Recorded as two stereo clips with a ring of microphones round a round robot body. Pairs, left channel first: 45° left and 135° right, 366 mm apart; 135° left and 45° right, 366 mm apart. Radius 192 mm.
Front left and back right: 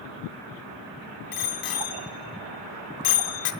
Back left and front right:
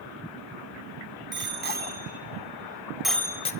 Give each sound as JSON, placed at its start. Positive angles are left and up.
{"t": 1.3, "sound": "a bicycle bell", "azimuth_deg": 15, "distance_m": 3.0}